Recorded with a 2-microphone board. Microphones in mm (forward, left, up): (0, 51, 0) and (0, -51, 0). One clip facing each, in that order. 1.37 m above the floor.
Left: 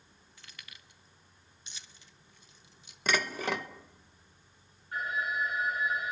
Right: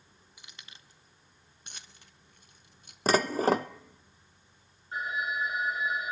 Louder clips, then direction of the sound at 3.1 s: Right 7 dB; 35° right (ahead or behind).